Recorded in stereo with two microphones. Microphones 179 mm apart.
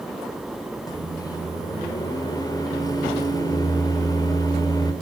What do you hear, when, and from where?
0.9 s a microwave: 20° left (ahead or behind), 3 m